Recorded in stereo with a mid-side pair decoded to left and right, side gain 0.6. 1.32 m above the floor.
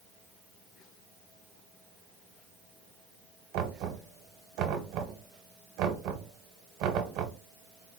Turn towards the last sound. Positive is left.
turn(degrees=-70)